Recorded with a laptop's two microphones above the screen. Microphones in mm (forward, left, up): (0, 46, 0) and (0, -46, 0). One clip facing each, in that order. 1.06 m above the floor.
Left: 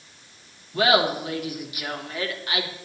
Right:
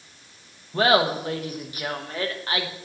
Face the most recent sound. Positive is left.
turn(degrees=-35)  # may be behind; listen again after turning